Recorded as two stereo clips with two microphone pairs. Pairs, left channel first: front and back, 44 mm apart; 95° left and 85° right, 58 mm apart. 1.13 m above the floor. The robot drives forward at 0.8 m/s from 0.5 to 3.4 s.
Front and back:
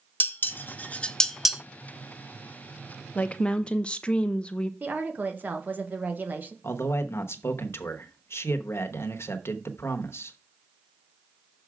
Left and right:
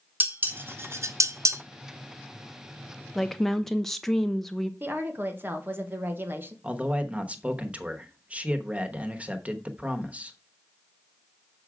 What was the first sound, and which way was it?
Dishes clattering, 30° right.